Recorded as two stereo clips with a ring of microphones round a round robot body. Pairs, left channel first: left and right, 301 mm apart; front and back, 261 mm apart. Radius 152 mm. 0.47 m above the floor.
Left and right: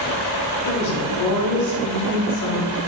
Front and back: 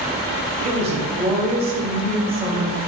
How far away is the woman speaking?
About 2.5 m.